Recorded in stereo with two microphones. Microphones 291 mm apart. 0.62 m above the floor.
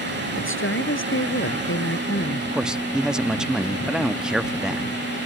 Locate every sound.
0.4 s a woman speaking: 45° left (ahead or behind)
2.5 s a man speaking: 5° right (ahead or behind)